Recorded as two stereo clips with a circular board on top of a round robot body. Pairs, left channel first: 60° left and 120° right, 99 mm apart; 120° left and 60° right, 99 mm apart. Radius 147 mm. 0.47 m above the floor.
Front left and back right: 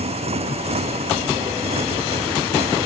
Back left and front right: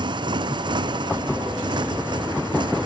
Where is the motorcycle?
105° right.